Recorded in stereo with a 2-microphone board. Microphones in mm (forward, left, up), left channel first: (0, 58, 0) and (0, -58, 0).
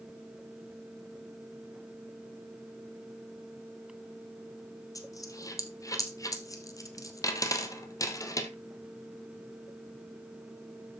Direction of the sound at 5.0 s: 30° left (ahead or behind).